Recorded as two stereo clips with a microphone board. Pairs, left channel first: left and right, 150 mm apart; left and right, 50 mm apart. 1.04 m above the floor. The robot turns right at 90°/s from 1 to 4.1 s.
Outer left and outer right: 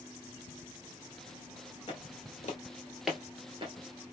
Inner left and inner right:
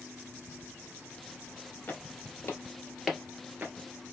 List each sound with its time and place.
1.9 s footsteps: 35° left (ahead or behind), 1.5 m; by 4.1 s 20° right (ahead or behind), 1.2 m